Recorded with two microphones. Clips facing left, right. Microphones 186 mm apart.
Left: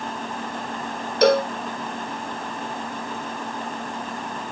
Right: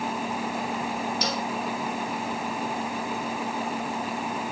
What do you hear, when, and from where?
1.2 s a cowbell: 65° left (ahead or behind)